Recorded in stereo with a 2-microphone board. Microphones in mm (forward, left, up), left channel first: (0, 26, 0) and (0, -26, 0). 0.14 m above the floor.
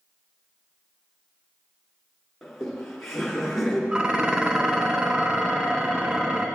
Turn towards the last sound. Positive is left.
turn(degrees=-20)  # may be behind; listen again after turning